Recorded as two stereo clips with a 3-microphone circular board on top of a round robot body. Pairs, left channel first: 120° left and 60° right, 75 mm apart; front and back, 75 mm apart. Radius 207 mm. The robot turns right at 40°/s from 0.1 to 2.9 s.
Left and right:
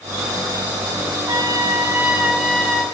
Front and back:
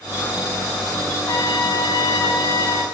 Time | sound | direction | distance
1.3 | a trumpet | 25° right | 6.5 m